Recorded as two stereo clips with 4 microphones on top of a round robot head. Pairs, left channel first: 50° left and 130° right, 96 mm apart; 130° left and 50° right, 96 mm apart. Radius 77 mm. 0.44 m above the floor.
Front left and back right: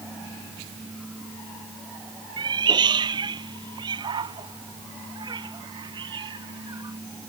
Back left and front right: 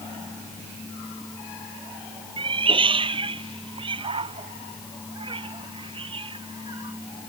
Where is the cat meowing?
85° right.